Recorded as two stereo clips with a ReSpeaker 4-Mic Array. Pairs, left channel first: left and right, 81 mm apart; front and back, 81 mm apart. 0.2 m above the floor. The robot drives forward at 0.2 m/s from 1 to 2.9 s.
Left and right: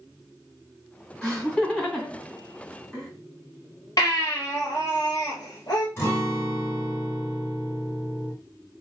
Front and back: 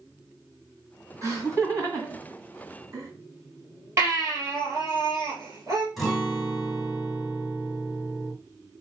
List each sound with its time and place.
1.2 s laughter: 165° left, 2.0 m
4.0 s a baby crying: 130° left, 1.9 m
6.0 s a guitar: 95° left, 1.6 m